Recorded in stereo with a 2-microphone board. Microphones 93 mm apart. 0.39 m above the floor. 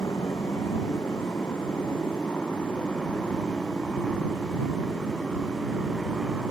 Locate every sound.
0.0 s a motorcycle: 35° left (ahead or behind); by 6.5 s 5° right (ahead or behind)